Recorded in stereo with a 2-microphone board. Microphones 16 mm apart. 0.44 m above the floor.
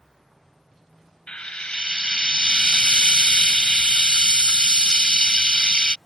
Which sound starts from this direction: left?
Frying, at 1.3 s.